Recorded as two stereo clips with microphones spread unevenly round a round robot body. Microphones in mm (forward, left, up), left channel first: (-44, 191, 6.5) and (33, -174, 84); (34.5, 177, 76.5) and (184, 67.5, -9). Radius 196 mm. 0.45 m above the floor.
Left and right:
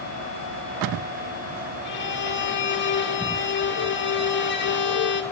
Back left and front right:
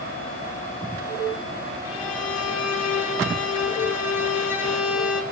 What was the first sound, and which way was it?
A violin, 145° left.